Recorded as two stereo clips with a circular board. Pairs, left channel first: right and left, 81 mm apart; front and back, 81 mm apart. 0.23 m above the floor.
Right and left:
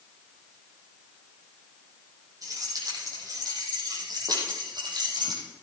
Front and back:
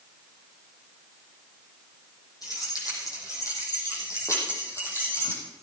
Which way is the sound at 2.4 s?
45° left.